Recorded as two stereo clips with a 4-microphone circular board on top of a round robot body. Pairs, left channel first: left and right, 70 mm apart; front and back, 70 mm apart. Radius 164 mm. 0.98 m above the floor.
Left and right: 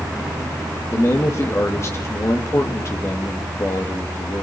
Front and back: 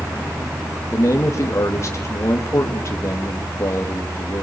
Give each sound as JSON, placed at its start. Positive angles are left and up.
{"t": 0.9, "sound": "a man speaking", "azimuth_deg": 45, "distance_m": 2.0}